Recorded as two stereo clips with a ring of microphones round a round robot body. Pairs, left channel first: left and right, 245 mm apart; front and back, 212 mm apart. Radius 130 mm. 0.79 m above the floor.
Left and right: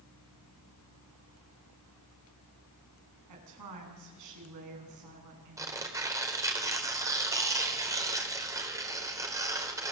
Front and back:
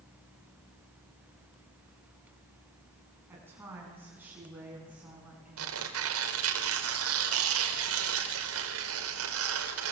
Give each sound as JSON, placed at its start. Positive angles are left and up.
{"t": 3.3, "sound": "a woman speaking", "azimuth_deg": -100, "distance_m": 8.5}
{"t": 5.6, "sound": "tearing paper", "azimuth_deg": -165, "distance_m": 3.5}